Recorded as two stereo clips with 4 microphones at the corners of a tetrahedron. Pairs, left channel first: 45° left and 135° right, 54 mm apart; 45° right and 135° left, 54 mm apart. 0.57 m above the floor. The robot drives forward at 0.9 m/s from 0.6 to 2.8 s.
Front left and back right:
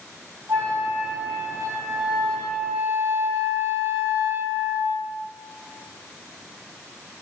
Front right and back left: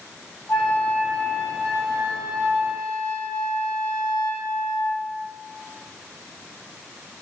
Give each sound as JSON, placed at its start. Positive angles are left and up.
{"t": 0.5, "sound": "a flute", "azimuth_deg": -105, "distance_m": 1.9}